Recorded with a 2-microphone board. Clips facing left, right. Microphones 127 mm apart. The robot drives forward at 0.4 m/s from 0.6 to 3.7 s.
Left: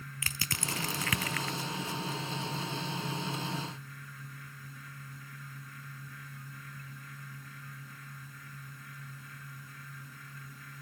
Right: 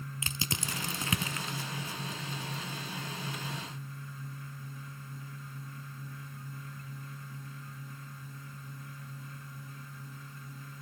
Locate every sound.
0.2 s crushing: 20° right (ahead or behind), 0.6 m; by 1.6 s 25° right (ahead or behind), 0.6 m